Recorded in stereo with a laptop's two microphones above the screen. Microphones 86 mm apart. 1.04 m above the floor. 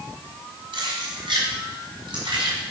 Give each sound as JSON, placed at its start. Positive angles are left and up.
{"t": 0.7, "sound": "keys jangling", "side_deg": -65, "distance_m": 4.0}